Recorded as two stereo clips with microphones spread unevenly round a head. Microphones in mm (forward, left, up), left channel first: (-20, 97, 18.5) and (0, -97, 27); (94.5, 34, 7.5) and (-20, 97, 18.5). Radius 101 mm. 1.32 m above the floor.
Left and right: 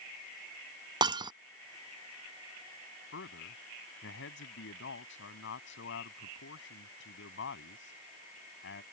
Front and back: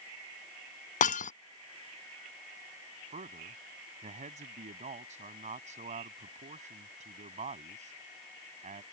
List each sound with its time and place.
1.0 s breaking glass: 15° right
3.1 s a man speaking: 125° left